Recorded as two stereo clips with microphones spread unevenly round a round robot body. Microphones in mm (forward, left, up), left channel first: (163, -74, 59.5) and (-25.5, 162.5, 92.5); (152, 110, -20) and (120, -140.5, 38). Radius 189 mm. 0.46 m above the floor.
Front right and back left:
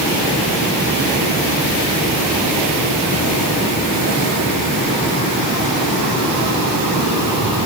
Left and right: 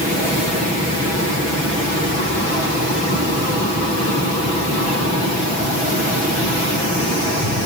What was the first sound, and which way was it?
Only background noise.